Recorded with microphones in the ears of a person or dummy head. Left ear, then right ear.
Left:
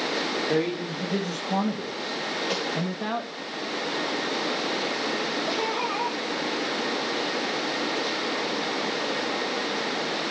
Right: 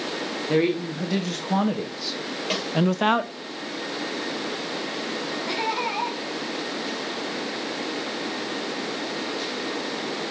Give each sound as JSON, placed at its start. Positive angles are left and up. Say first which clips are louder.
{"t": 0.5, "sound": "a man speaking", "louder": "right 3 dB", "side_deg": -25, "distance_m": 2.5}
{"t": 2.5, "sound": "a snare drum", "louder": "right 4 dB", "side_deg": -15, "distance_m": 6.0}
{"t": 5.5, "sound": "laughter", "louder": "right 1 dB", "side_deg": -25, "distance_m": 4.5}